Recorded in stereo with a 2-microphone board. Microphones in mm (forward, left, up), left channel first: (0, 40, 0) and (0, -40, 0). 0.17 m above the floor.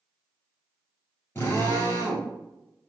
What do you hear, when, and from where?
1.4 s a drill: 30° left (ahead or behind), 2.0 m